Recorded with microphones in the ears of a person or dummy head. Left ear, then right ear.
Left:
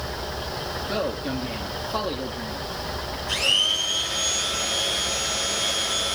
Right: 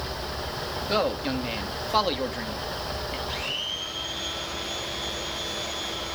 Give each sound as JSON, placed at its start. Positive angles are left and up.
{"t": 0.9, "sound": "a man speaking", "side_deg": -50, "distance_m": 2.5}
{"t": 3.3, "sound": "a blender", "side_deg": 45, "distance_m": 5.5}